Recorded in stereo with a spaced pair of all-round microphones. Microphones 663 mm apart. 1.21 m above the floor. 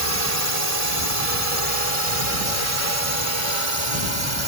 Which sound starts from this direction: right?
A drone, at 0.0 s.